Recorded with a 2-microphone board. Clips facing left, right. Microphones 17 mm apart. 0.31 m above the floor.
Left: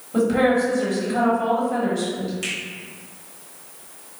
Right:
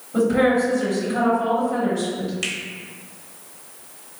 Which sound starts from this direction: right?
A finger snap, at 2.4 s.